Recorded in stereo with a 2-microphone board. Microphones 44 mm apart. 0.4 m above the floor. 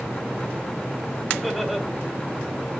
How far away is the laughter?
About 2.0 m.